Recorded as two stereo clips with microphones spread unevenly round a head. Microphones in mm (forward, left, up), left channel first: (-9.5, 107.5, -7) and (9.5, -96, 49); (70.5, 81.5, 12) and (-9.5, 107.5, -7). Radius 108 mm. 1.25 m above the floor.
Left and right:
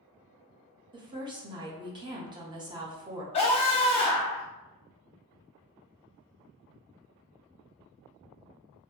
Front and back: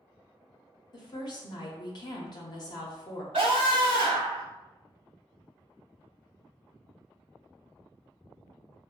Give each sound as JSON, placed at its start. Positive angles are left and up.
{"t": 0.9, "sound": "a woman speaking", "azimuth_deg": -5, "distance_m": 0.6}
{"t": 3.3, "sound": "a scream", "azimuth_deg": 160, "distance_m": 0.8}